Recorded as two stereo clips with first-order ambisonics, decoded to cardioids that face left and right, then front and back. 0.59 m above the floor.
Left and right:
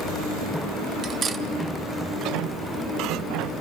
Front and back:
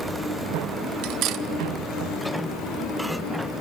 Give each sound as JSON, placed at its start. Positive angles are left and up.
{"t": 1.0, "sound": "cutlery clinking", "azimuth_deg": -150, "distance_m": 0.8}